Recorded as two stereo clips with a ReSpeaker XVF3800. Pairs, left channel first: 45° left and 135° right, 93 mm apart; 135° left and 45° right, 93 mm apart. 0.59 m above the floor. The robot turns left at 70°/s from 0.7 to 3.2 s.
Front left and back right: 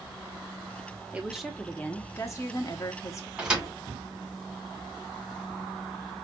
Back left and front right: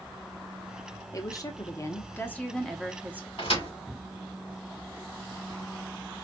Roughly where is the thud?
Behind left.